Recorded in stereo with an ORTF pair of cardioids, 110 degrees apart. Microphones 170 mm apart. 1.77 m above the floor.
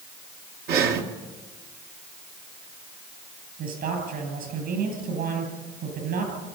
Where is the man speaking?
65° right, 10 m.